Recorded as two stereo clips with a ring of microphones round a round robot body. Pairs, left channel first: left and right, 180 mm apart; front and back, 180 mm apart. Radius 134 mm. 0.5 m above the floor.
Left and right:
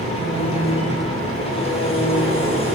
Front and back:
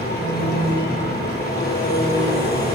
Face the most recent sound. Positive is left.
turn(degrees=30)